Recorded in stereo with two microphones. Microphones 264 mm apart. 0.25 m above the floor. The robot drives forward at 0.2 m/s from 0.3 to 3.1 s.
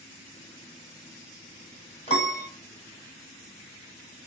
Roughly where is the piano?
Left.